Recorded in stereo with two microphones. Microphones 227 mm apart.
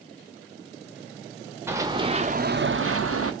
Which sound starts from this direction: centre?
Running footsteps, at 1.7 s.